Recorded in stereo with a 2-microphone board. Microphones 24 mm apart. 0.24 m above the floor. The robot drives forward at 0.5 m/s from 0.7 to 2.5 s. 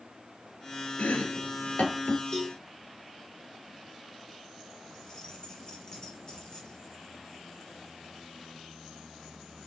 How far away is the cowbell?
About 6.5 m.